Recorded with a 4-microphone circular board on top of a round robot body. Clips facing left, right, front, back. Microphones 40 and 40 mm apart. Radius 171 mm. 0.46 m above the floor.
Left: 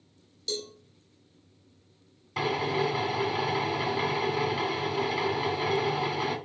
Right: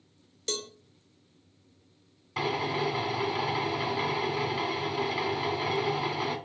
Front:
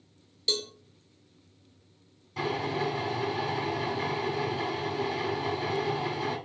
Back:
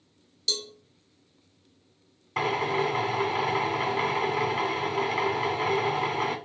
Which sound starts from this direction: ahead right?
A cowbell, at 0.5 s.